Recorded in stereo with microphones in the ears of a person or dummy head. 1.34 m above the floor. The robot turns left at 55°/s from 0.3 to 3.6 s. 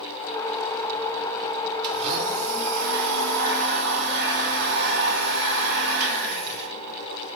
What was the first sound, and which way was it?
A blender, 30° right.